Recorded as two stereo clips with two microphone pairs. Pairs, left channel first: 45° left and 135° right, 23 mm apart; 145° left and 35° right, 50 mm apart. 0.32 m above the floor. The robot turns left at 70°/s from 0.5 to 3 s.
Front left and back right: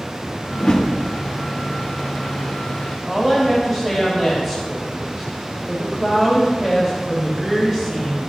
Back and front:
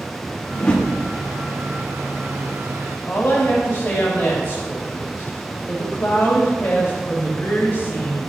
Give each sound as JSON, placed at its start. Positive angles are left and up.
{"t": 0.5, "sound": "a whoosh", "azimuth_deg": 90, "distance_m": 3.0}
{"t": 3.1, "sound": "a woman speaking", "azimuth_deg": 140, "distance_m": 2.5}